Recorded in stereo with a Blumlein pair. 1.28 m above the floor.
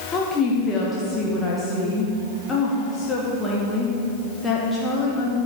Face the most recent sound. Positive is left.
turn(degrees=15)